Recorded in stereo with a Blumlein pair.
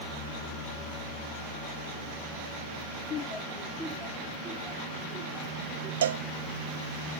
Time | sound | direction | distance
3.1 | laughter | 30° left | 0.6 m
6.0 | a cowbell | 60° right | 0.5 m